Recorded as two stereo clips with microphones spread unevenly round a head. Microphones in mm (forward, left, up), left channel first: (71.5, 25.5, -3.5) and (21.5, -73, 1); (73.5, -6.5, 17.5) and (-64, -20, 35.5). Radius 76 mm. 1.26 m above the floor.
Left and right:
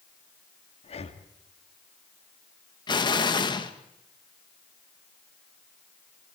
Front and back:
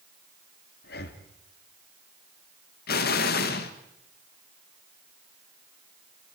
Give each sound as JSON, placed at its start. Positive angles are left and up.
{"t": 0.8, "sound": "breathing", "azimuth_deg": 30, "distance_m": 1.8}
{"t": 2.9, "sound": "an explosion", "azimuth_deg": 15, "distance_m": 1.6}